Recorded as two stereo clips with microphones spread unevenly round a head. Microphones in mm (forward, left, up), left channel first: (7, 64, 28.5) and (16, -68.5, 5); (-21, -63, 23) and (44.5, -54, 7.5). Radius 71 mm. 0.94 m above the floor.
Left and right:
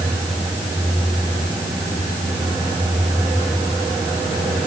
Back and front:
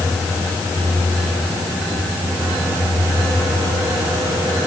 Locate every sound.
Only background noise.